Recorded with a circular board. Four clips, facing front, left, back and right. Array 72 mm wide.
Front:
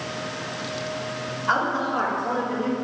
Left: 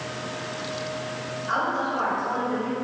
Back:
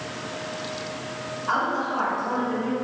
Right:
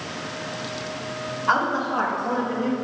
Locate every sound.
1.5 s a woman speaking: 80° right, 2 m; by 2.8 s 85° right, 1.3 m